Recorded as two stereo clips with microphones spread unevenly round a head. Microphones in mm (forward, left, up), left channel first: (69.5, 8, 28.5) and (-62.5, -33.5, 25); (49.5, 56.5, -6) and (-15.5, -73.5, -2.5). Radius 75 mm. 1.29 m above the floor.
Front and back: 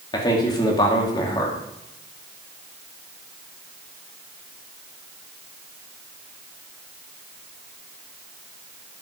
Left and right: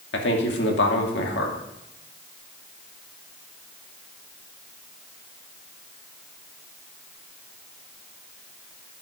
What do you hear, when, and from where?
0.1 s a man speaking: 80° left, 2.5 m